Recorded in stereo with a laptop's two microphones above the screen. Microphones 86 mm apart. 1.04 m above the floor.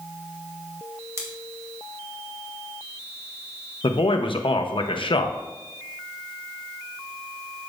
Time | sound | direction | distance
1.2 | scissors | 35° right (ahead or behind) | 1.7 m
3.8 | a man speaking | 75° left (ahead or behind) | 0.7 m